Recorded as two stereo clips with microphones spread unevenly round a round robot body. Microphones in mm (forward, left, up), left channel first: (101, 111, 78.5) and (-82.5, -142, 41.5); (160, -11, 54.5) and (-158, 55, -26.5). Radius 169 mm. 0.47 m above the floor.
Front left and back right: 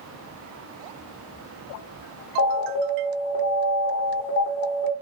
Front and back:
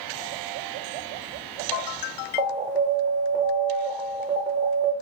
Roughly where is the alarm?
Left.